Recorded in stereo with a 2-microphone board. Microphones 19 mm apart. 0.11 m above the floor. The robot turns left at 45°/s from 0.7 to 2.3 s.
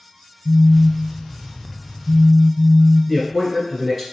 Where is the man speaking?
5° left (ahead or behind), 1.1 m.